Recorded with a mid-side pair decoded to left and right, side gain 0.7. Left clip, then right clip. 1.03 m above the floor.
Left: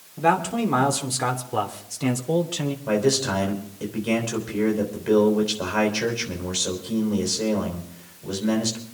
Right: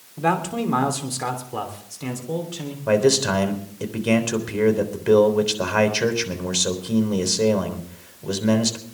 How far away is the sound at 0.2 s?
About 3 m.